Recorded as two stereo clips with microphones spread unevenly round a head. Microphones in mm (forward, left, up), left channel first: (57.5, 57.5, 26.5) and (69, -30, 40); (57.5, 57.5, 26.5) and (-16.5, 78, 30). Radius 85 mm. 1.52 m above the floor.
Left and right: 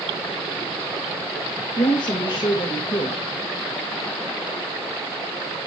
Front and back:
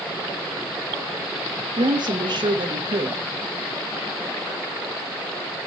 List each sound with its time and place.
1.8 s a woman speaking: 145° left, 2.5 m